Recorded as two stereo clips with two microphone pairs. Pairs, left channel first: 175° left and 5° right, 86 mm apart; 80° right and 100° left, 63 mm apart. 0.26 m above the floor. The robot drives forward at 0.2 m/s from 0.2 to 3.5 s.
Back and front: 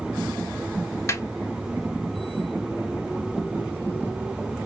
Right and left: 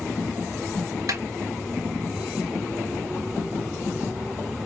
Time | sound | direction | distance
1.1 | a snare drum | 120° left | 1.0 m